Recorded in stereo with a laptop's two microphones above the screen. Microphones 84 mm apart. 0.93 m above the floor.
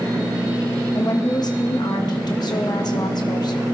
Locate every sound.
0.9 s a woman speaking: 55° left (ahead or behind), 1.0 m